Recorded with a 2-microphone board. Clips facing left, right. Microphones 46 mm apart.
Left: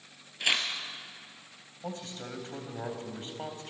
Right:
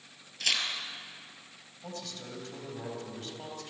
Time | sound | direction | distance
0.4 | tearing paper | 20° left (ahead or behind) | 2.5 m
1.8 | a man speaking | 30° left (ahead or behind) | 3.5 m